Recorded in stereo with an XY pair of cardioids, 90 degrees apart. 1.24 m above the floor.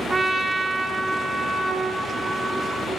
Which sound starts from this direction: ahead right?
A trumpet, at 0.1 s.